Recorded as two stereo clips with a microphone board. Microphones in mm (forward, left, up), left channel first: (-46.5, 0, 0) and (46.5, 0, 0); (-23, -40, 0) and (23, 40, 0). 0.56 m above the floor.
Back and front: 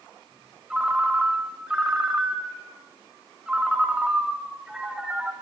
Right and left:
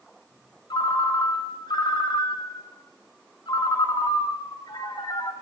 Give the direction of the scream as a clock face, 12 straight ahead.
No scream in this recording.